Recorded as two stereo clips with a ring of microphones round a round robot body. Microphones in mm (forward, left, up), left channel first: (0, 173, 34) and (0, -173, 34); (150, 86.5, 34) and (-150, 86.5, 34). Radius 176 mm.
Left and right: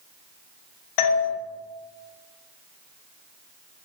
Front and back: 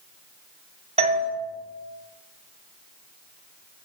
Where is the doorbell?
110° left, 2.5 m.